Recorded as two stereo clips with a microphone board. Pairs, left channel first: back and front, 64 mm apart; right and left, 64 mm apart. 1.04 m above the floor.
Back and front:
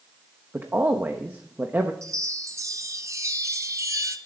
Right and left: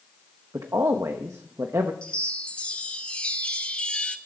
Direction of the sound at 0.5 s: 60° left.